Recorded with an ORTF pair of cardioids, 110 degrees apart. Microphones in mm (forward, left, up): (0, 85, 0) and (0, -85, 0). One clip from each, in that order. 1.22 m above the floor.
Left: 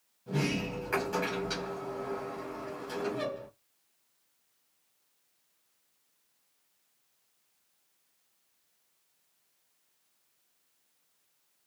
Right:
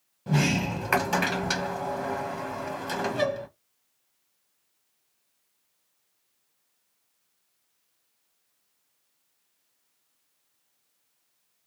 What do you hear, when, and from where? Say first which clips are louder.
0.3 s a sliding door: right 6 dB; 70° right, 1.1 m